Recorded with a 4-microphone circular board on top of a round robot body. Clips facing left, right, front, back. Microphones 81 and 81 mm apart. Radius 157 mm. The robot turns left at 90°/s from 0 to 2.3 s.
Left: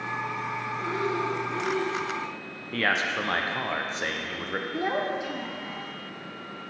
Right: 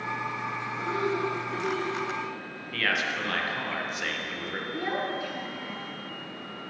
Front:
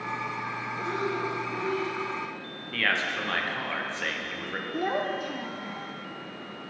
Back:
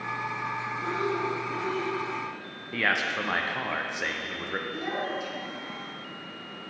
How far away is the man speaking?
About 0.8 m.